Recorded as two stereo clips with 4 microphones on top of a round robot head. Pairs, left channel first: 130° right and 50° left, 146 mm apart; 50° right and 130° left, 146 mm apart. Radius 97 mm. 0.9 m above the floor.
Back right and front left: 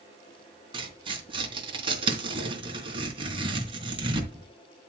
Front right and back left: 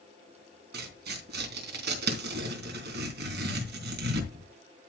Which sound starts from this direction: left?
Tearing paper, at 0.7 s.